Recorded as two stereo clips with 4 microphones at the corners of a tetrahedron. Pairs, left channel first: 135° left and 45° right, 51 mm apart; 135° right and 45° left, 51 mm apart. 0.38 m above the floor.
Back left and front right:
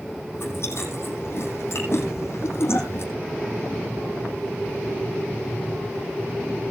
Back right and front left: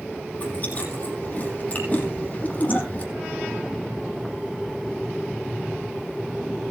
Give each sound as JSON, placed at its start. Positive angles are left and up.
{"t": 0.3, "sound": "chewing", "azimuth_deg": 170, "distance_m": 6.5}